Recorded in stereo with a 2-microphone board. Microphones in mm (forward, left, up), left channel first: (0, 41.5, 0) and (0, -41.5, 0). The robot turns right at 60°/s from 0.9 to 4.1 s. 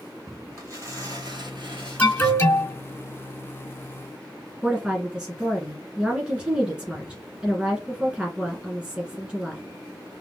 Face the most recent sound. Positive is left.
turn(degrees=-5)  # may be behind; listen again after turning